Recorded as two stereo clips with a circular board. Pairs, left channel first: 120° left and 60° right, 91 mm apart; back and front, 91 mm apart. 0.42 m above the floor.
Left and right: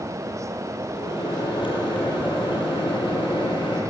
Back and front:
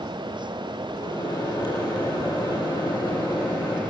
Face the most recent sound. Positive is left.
turn(degrees=135)